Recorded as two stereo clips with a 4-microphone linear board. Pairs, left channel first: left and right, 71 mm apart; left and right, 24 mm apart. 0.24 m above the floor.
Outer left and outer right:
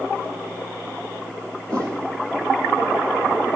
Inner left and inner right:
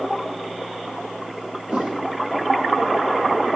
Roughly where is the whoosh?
Right.